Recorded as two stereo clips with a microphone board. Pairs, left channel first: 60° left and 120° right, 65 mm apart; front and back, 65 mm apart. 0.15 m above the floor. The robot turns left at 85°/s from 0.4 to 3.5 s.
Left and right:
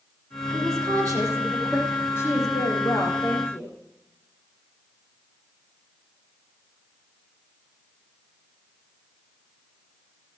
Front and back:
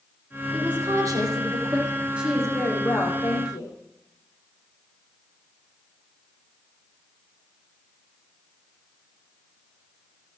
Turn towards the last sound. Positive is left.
turn(degrees=-5)